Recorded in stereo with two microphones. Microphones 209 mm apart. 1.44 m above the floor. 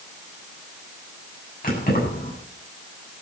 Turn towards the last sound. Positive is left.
turn(degrees=45)  # may be behind; listen again after turning